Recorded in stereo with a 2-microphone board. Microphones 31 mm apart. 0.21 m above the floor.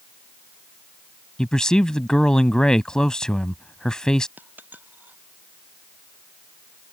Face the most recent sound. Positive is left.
turn(degrees=-80)